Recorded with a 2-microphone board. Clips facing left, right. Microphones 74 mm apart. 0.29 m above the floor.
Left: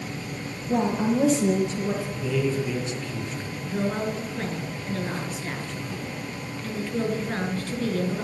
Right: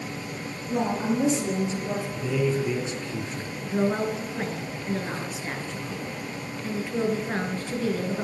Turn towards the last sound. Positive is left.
turn(degrees=-10)  # may be behind; listen again after turning